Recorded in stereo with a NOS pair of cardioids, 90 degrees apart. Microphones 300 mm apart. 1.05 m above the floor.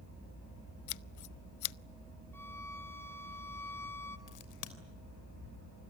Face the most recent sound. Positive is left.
turn(degrees=70)